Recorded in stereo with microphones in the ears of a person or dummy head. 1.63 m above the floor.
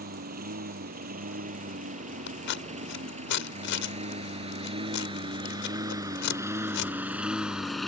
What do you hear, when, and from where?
0.0 s a lawn mower: 45° right (ahead or behind); by 7.9 s 5° left (ahead or behind)
2.3 s scissors: 65° left (ahead or behind)